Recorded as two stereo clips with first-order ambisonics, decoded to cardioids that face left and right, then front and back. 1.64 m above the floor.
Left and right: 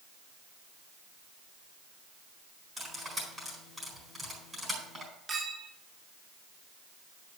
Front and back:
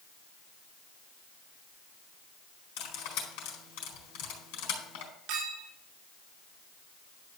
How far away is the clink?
About 3 m.